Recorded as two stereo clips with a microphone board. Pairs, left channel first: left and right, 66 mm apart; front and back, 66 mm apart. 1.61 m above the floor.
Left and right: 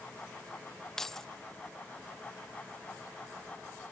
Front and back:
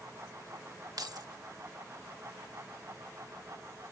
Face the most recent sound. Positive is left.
turn(degrees=175)